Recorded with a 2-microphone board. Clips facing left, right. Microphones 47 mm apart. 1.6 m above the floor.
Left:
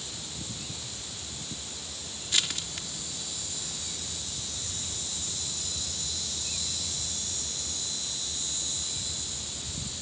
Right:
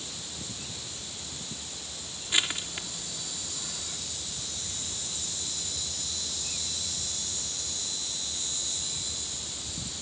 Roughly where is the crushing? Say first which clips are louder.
Right 2 dB; right.